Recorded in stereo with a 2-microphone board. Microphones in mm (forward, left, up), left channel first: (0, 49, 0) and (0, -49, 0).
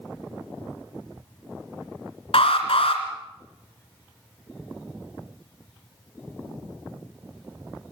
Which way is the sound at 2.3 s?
70° left (ahead or behind).